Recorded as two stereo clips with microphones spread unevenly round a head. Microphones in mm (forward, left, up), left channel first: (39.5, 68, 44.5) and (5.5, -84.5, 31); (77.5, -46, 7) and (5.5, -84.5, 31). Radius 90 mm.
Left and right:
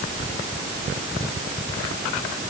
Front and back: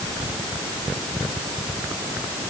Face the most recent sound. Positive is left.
No sound to turn to.